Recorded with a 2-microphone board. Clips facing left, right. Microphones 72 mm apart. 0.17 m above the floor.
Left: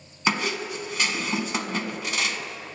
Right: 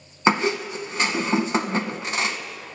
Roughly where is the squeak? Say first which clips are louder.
Right 5 dB; right.